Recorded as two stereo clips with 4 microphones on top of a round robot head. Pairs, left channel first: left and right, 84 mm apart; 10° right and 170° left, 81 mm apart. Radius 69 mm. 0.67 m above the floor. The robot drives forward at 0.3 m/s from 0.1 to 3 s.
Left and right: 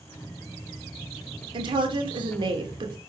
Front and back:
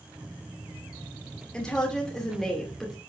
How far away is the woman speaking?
About 2.5 m.